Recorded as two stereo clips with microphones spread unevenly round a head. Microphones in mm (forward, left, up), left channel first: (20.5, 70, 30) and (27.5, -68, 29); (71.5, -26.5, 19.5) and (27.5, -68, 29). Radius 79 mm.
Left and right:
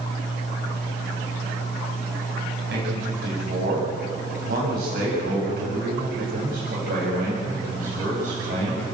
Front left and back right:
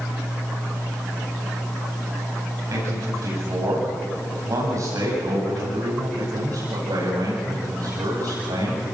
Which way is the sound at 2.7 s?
105° right.